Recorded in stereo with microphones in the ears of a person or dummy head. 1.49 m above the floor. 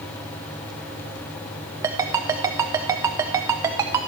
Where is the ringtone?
20° right (ahead or behind), 0.5 m.